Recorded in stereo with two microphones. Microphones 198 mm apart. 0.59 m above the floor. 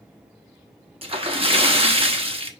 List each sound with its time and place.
1.0 s a splash: 30° right (ahead or behind), 1.1 m